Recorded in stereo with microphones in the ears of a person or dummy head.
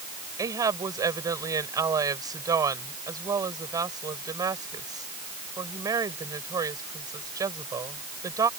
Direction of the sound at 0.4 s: 20° right (ahead or behind).